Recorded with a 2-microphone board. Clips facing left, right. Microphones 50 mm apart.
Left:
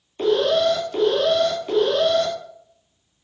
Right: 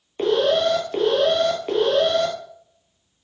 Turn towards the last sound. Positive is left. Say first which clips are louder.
# even
turn(degrees=-30)  # may be behind; listen again after turning